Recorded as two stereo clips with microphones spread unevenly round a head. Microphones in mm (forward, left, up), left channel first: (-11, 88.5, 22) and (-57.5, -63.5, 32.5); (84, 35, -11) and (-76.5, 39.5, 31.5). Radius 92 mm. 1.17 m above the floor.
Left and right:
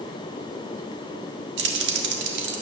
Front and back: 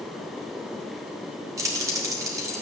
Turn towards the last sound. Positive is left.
turn(degrees=-110)